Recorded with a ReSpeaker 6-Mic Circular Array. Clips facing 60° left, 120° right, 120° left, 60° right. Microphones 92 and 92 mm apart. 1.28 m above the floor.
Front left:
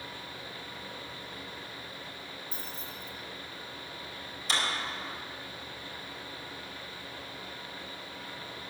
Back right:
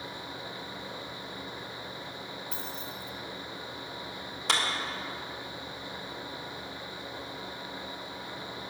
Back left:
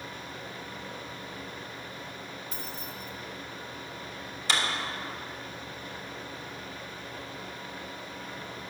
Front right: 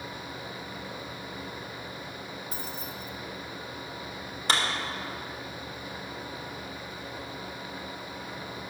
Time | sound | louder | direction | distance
2.5 | keys jangling | back right 3 dB, front right 2 dB | 115° right | 1.6 m
4.5 | a clap | back right 3 dB, front right 2 dB | 100° right | 2 m